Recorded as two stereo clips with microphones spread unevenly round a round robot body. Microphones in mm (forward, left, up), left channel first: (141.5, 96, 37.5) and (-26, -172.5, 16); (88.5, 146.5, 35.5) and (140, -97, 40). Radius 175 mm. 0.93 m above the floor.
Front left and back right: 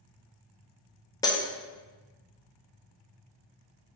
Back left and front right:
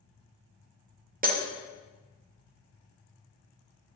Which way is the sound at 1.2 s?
20° right.